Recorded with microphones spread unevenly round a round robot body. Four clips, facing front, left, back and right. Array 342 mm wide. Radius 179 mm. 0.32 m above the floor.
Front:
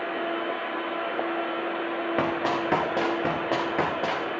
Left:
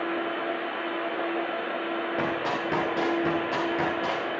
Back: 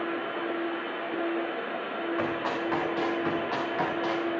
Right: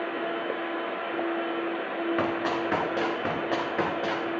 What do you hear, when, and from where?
2.2 s running footsteps: 5° right, 5.5 m; by 4.3 s 10° right, 7 m